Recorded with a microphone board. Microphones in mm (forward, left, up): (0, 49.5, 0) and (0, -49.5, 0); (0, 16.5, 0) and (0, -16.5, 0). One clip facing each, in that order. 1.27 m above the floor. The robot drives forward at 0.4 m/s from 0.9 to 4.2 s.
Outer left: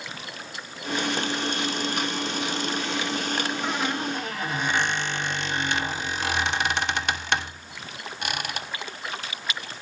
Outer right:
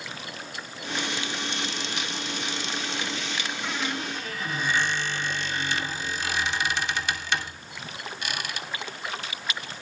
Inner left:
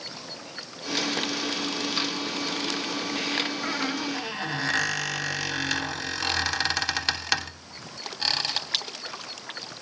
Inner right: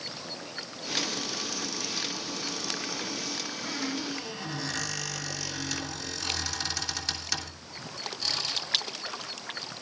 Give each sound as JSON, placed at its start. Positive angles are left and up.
{"t": 3.6, "sound": "a squeak", "side_deg": 50, "distance_m": 1.7}